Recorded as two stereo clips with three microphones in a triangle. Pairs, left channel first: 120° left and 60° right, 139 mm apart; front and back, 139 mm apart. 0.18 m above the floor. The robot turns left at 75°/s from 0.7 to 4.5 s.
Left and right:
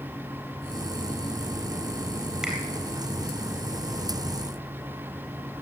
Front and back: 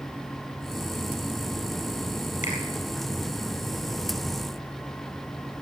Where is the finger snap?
25° left, 4 m; by 2.6 s 15° left, 4 m.